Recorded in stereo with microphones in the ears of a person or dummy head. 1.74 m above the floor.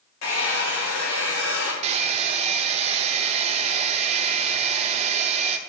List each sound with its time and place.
0.2 s a hair dryer: 70° left (ahead or behind), 2.5 m
1.8 s a hair dryer: 45° right (ahead or behind), 0.8 m